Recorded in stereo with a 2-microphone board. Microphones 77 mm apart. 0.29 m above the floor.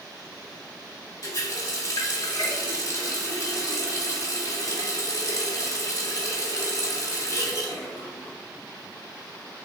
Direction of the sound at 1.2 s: 55° left (ahead or behind).